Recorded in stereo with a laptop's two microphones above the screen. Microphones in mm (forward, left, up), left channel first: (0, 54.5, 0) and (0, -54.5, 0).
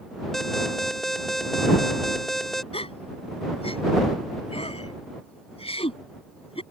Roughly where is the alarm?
Centre.